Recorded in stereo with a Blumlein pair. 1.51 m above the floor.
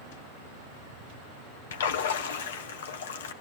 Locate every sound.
1.7 s a splash: 60° left, 0.9 m